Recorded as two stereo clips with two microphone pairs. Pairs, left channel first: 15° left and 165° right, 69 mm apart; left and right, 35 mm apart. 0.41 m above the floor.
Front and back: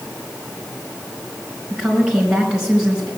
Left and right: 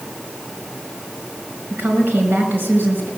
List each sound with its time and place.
1.7 s a woman speaking: 85° right, 5 m